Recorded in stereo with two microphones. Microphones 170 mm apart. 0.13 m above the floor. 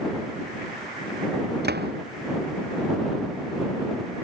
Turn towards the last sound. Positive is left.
turn(degrees=-70)  # may be behind; listen again after turning